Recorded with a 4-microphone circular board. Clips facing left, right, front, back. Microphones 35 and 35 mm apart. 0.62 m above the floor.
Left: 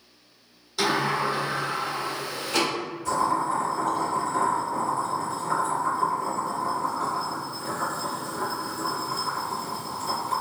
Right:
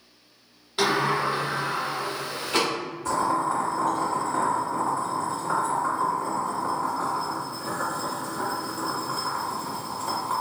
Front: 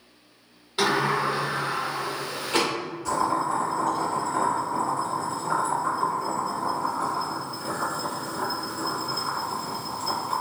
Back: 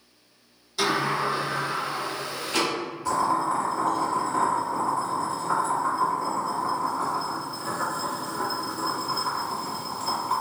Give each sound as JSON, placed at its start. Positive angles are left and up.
{"t": 0.8, "sound": "a sliding door", "azimuth_deg": -45, "distance_m": 1.3}
{"t": 3.0, "sound": "boiling", "azimuth_deg": -110, "distance_m": 1.6}